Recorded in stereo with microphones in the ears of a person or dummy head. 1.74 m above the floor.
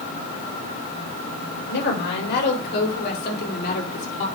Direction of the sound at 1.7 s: 60° left (ahead or behind).